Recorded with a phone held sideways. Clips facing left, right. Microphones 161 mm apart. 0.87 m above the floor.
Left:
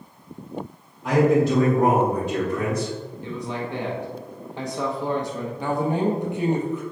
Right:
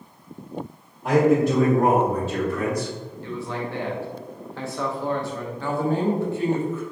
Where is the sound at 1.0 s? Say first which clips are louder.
Even; 30° right (ahead or behind), 1.5 m; by 2.9 s 30° left (ahead or behind), 2 m.